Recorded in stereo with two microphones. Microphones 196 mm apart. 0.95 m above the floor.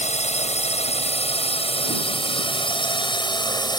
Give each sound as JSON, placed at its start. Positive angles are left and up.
{"t": 0.0, "sound": "a drone", "side_deg": 35}